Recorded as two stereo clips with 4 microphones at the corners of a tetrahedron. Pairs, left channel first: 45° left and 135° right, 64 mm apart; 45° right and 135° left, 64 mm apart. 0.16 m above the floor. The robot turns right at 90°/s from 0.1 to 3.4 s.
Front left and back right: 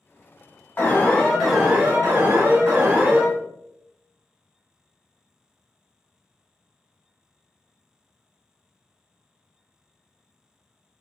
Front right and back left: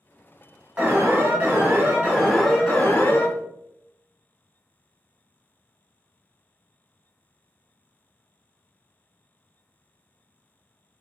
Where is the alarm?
75° left, 1.0 m; by 3.3 s 60° right, 1.0 m.